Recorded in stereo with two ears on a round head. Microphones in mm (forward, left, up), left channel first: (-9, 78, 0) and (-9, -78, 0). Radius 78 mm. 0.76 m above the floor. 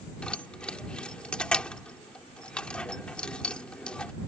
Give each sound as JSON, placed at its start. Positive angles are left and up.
{"t": 0.2, "sound": "keys jangling", "side_deg": 5}